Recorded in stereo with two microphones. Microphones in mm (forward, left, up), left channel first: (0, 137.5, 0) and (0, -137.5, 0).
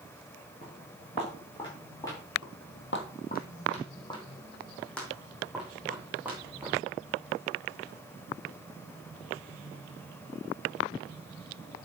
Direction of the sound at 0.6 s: 30° left (ahead or behind).